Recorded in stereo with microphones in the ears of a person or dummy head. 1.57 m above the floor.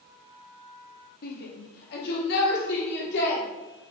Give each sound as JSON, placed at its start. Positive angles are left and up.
{"t": 1.2, "sound": "a shout", "side_deg": 55, "distance_m": 2.5}